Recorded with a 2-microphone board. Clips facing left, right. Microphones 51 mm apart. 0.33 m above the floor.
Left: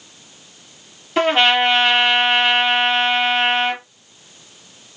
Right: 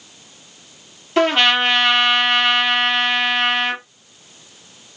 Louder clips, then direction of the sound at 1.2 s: Even; 5° left (ahead or behind).